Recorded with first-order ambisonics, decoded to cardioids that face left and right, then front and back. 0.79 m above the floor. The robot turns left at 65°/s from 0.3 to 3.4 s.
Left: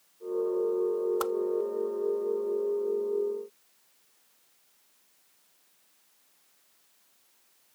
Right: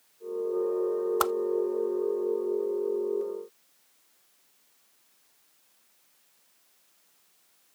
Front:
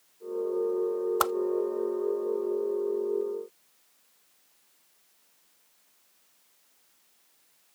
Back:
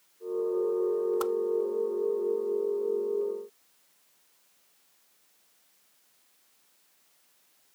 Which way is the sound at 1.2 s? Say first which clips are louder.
Right 4 dB, front 3 dB; 35° right.